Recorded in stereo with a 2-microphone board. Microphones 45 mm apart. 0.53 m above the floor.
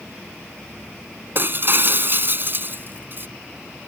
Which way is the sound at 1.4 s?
45° right (ahead or behind).